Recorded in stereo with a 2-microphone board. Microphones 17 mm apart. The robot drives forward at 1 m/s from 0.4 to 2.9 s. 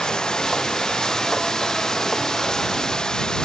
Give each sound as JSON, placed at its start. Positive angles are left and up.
{"t": 0.0, "sound": "running water", "side_deg": 45}